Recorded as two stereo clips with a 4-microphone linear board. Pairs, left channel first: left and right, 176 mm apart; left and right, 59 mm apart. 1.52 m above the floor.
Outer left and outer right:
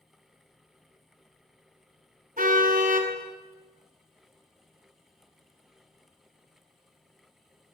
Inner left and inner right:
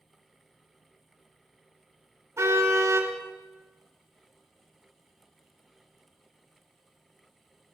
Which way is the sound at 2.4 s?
50° right (ahead or behind).